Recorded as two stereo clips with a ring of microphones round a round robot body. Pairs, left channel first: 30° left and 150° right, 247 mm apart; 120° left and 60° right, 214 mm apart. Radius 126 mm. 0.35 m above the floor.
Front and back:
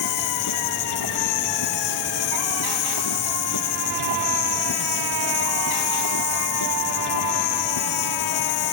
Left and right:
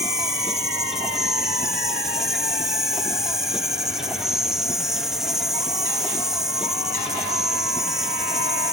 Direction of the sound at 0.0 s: 30° left.